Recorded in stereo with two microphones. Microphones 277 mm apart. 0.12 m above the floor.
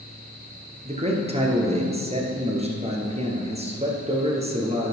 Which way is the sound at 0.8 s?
25° right (ahead or behind).